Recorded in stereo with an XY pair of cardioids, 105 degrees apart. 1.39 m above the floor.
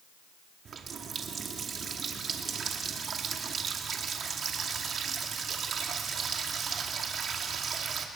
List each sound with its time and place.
0.7 s a running tap: 50° right, 2 m